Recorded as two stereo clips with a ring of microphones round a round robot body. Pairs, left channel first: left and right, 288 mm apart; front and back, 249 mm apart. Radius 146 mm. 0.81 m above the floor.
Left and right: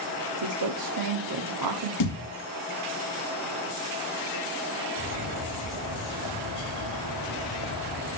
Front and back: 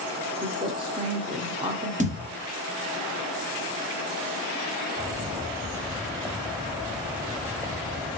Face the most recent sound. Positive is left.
turn(degrees=105)